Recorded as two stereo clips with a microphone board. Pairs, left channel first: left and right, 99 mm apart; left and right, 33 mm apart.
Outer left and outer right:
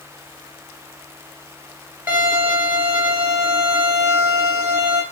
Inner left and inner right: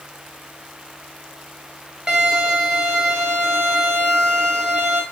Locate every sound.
2.1 s a violin: 20° right (ahead or behind), 1.4 m